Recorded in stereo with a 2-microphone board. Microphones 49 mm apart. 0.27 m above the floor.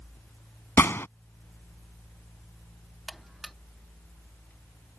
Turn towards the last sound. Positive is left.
turn(degrees=0)  # may be behind; listen again after turning